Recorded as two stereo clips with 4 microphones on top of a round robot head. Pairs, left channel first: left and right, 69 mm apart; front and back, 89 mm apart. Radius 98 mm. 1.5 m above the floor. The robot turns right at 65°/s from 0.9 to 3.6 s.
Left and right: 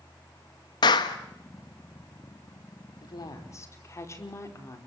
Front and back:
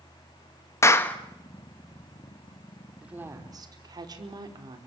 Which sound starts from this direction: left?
A woman speaking, at 3.0 s.